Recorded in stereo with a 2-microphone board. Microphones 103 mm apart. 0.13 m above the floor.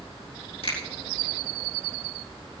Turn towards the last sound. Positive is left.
turn(degrees=75)  # may be behind; listen again after turning